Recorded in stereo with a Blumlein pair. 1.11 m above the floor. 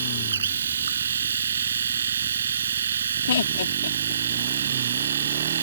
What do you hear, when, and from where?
0.0 s a machine running: 70° right
3.3 s laughter: 65° left